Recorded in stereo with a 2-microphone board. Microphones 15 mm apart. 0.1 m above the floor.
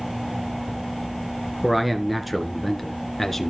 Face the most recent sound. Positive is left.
turn(degrees=15)  # may be behind; listen again after turning